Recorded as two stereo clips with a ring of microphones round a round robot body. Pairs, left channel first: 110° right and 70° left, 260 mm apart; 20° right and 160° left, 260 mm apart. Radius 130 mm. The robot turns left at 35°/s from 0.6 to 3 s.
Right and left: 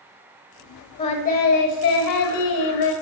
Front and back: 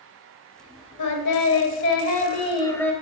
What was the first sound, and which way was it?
Singing, 40° right.